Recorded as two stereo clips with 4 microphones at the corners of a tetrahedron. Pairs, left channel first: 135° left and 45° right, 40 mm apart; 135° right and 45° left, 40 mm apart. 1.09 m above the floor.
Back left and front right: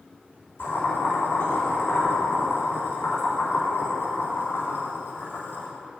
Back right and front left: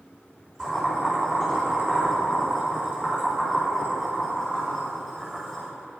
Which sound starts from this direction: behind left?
Boiling, at 0.6 s.